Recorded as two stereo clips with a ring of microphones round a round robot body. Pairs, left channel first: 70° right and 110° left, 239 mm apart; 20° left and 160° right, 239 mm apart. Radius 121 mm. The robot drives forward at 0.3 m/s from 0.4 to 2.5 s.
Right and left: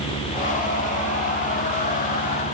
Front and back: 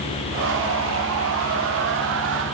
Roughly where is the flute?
I don't hear a flute.